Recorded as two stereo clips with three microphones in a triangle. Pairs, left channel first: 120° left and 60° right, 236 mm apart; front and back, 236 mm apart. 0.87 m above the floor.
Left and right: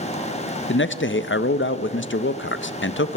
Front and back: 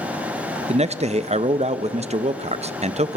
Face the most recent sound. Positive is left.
turn(degrees=120)